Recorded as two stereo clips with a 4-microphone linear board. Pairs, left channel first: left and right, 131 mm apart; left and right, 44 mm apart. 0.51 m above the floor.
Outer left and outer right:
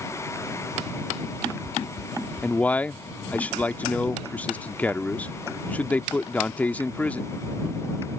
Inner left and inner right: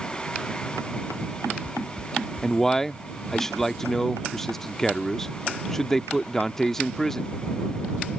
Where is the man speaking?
10° left (ahead or behind).